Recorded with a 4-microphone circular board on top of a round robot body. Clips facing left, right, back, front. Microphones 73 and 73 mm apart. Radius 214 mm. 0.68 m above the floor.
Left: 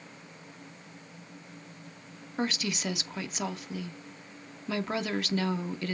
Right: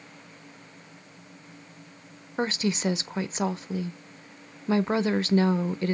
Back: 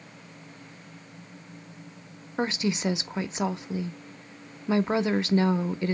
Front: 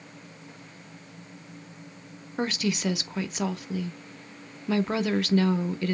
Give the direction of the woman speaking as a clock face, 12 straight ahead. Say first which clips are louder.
Right 5 dB, back 1 dB; 4 o'clock.